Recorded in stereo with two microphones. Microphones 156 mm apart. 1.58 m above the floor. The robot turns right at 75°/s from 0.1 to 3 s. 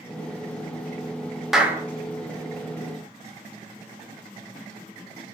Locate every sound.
1.5 s a clap: centre (ahead or behind), 0.7 m; by 1.8 s 20° right (ahead or behind), 0.7 m